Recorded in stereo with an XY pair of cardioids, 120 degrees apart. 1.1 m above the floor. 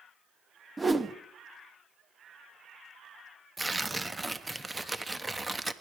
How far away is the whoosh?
About 0.9 m.